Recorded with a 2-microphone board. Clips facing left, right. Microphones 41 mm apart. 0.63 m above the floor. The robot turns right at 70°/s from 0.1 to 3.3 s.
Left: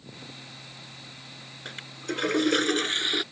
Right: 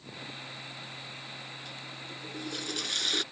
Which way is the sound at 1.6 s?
50° left.